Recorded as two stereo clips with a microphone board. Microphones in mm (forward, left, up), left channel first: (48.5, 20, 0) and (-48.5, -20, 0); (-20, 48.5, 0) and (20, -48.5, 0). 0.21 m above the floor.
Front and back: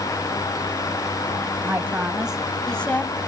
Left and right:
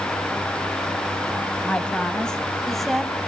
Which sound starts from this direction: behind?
A woman speaking, at 1.6 s.